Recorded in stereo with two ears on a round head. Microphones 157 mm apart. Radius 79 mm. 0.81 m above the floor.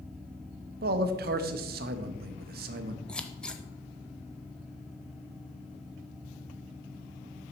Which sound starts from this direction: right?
A man speaking, at 0.8 s.